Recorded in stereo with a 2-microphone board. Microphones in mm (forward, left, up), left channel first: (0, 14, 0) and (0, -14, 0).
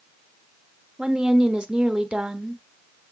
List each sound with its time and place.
1.0 s a woman speaking: 40° right (ahead or behind), 1.0 m